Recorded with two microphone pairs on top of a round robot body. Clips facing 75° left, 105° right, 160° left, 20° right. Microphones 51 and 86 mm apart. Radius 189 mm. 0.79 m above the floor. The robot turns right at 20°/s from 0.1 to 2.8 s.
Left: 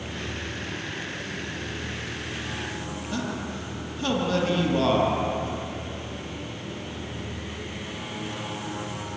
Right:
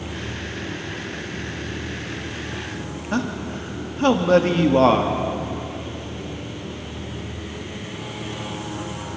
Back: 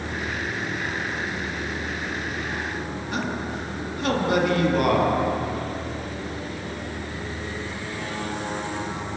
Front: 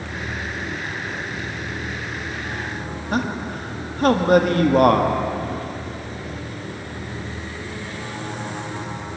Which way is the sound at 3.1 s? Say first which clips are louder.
Right 7 dB, front 5 dB; 65° right.